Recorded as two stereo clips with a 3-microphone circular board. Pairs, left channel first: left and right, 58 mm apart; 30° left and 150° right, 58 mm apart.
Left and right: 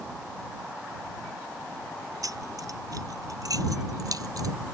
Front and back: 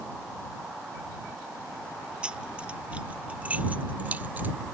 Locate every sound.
2.2 s keys jangling: 75° right; by 4.5 s 90° right